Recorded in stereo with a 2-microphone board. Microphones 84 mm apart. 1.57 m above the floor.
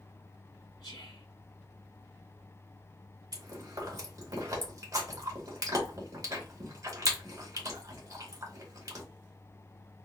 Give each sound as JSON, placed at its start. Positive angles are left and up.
{"t": 0.8, "sound": "whispering", "side_deg": 55, "distance_m": 0.6}
{"t": 3.3, "sound": "chewing", "side_deg": -40, "distance_m": 1.4}